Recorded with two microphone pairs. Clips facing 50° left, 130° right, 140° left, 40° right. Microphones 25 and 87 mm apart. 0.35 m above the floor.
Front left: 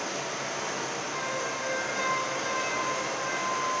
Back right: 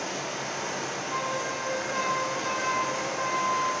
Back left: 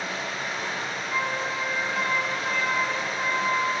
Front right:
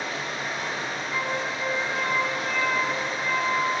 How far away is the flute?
About 0.7 m.